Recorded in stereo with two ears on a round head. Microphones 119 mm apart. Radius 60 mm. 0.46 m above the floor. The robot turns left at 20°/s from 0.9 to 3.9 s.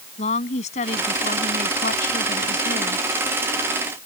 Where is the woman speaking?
120° left; by 3.1 s 75° left.